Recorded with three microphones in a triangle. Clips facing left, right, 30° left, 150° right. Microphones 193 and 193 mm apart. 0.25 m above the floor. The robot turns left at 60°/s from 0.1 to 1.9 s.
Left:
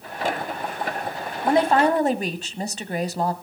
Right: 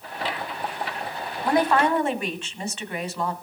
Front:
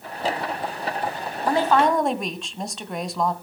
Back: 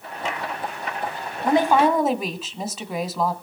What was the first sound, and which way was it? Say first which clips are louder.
A woman speaking: left 2 dB, back 2 dB; 150° left.